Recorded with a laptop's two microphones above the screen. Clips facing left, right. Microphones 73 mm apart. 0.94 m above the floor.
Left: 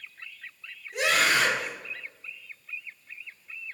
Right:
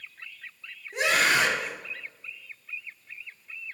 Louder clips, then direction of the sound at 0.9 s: Right 1 dB; 35° right (ahead or behind).